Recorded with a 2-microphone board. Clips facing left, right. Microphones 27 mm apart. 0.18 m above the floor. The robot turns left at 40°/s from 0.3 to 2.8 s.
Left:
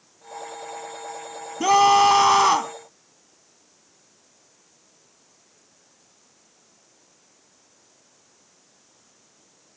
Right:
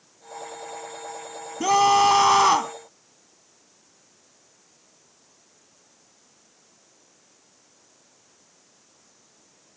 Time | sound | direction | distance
1.6 | a scream | 15° left (ahead or behind) | ?